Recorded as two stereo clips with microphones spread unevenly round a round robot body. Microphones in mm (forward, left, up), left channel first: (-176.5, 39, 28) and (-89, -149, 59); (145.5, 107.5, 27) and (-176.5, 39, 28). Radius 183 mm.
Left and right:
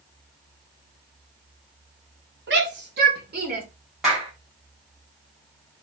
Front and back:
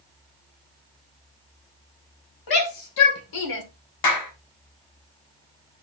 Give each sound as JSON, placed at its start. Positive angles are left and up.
{"t": 2.5, "sound": "a shout", "azimuth_deg": -15, "distance_m": 3.5}
{"t": 4.0, "sound": "a clap", "azimuth_deg": 25, "distance_m": 3.0}